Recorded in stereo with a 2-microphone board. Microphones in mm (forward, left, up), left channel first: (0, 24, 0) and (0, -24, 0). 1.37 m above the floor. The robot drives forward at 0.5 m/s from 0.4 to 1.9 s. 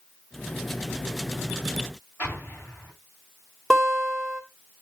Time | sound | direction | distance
2.2 | an explosion | 35° left (ahead or behind) | 8.5 m
3.7 | a guitar | 5° left (ahead or behind) | 3 m